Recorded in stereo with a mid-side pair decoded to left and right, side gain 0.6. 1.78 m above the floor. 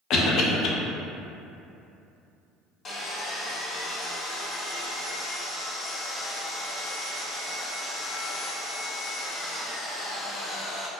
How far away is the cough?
About 0.6 m.